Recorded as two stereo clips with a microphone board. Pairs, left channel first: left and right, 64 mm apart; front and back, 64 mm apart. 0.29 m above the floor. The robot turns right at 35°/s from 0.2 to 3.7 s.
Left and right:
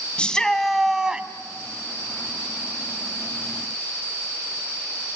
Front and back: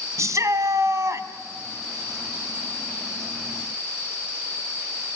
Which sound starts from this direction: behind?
A shout, at 0.2 s.